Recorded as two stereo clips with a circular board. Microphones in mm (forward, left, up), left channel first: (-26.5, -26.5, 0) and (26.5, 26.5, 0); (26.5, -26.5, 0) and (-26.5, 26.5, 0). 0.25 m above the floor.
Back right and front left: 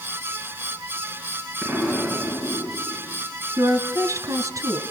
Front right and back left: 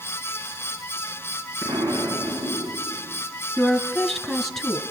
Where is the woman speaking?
45° left, 2 m.